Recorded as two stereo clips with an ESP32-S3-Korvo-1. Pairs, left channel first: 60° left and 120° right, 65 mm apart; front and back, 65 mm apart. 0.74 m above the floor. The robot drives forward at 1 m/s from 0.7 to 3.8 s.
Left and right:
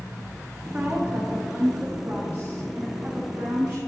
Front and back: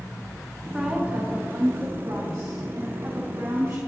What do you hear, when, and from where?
0.7 s a woman speaking: 100° right, 0.9 m; by 3.8 s 175° right, 3 m